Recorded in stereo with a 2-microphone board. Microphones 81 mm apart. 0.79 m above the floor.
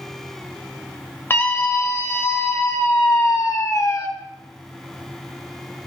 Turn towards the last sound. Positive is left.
turn(degrees=45)  # may be behind; listen again after turning